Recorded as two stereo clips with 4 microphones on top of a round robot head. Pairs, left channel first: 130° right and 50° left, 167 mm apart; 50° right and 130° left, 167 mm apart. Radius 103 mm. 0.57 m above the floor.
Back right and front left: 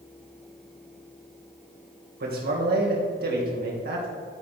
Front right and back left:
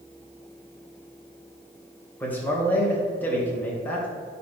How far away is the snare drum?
I don't hear a snare drum.